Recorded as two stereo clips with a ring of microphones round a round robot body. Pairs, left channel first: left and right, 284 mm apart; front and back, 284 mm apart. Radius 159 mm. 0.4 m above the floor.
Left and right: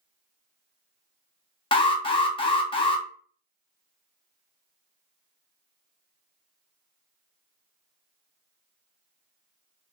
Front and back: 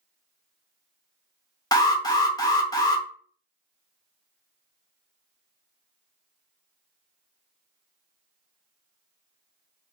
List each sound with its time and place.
1.7 s an alarm: 55° left, 0.6 m